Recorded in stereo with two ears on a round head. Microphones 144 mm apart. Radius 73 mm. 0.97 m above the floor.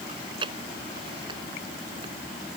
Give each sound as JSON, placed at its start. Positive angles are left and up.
{"t": 0.1, "sound": "chewing", "side_deg": -30}